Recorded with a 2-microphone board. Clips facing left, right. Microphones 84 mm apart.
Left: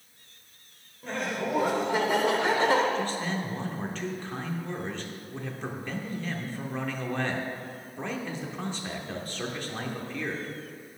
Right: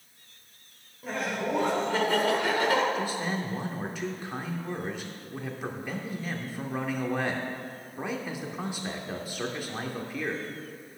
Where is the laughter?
5° right (ahead or behind), 1.5 m; by 2.9 s 35° left (ahead or behind), 1.3 m.